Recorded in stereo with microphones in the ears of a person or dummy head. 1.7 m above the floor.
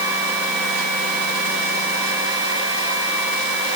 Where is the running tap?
I don't hear a running tap.